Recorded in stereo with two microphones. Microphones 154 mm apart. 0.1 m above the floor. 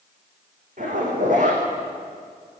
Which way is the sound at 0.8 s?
60° right (ahead or behind).